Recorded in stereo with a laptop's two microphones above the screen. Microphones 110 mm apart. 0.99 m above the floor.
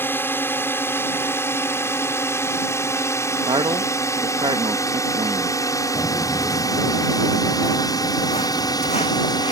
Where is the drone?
20° left (ahead or behind); by 9.5 s 35° left (ahead or behind).